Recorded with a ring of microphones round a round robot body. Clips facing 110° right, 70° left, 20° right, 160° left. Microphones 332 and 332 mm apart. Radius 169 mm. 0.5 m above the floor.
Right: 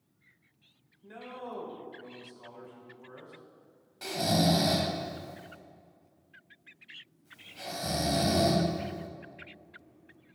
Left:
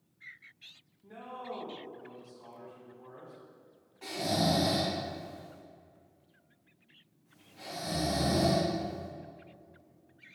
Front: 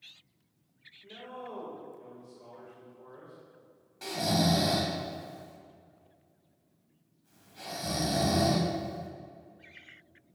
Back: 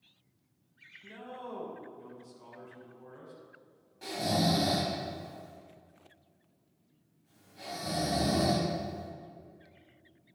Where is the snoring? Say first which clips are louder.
Right 3 dB, front 1 dB; 85° right, 1.8 m.